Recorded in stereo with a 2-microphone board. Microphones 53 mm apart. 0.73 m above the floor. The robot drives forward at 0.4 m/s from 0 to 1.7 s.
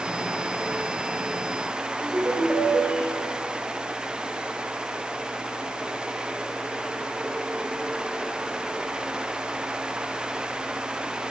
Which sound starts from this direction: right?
A ringtone, at 2.0 s.